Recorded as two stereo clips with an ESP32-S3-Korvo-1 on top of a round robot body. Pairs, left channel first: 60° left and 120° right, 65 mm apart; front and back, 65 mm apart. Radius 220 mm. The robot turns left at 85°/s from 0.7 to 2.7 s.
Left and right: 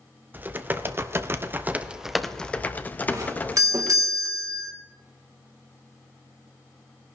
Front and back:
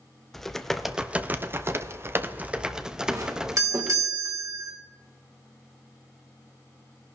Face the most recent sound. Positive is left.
turn(degrees=-150)